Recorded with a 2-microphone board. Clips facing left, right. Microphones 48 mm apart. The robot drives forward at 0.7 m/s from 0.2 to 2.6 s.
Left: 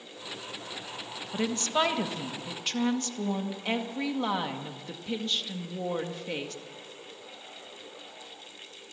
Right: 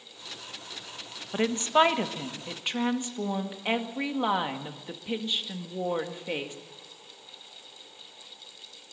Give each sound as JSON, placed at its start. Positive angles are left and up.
{"t": 1.3, "sound": "a woman speaking", "side_deg": -30, "distance_m": 1.3}